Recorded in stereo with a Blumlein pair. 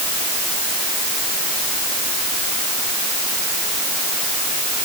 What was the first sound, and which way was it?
Only background noise.